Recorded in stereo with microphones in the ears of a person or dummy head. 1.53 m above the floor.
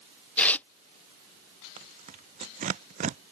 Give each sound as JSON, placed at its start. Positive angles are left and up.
{"t": 0.4, "sound": "tearing paper", "side_deg": 10}
{"t": 1.8, "sound": "tearing paper", "side_deg": -45}